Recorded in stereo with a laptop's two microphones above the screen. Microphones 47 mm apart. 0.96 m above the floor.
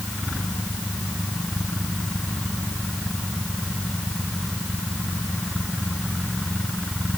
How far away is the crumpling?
No crumpling in this recording.